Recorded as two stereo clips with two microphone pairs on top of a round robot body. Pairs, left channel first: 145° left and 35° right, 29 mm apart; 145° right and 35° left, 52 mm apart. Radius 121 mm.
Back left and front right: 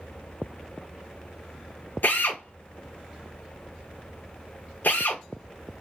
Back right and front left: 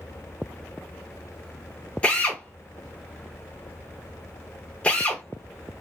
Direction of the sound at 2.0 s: 145° left.